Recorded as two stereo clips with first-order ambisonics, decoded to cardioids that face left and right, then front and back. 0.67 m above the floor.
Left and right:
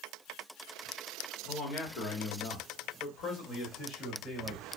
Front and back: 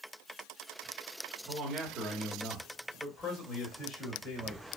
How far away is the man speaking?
About 1.3 m.